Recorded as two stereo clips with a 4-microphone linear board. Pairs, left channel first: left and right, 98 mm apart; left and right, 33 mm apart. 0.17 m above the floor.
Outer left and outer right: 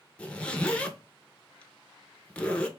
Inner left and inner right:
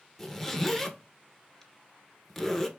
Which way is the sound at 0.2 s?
10° left (ahead or behind).